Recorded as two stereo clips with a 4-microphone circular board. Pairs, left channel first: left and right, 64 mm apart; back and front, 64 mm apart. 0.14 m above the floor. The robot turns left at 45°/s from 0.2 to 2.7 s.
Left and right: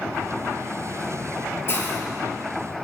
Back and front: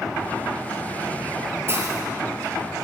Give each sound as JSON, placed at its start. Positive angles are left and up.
{"t": 1.7, "sound": "a hiss", "azimuth_deg": 45, "distance_m": 3.0}